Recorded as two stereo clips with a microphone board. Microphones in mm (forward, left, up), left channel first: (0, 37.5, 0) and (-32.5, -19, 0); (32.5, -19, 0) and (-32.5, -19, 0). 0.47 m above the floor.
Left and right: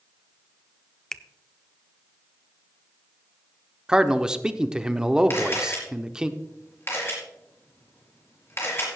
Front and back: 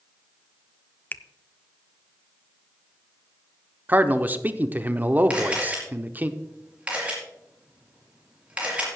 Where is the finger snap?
20° right, 0.5 m.